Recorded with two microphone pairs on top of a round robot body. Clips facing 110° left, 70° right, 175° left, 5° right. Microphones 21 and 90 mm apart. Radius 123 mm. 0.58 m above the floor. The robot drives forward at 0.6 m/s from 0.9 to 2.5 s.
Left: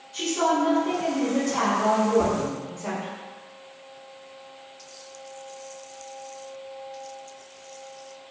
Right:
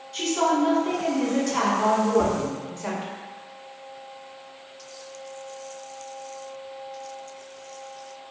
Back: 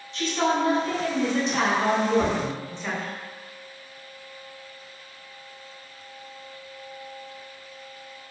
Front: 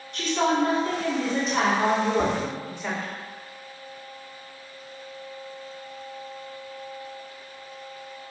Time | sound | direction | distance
0.1 | a woman speaking | 35° right | 1.4 m
2.2 | tapping | 30° right | 1.1 m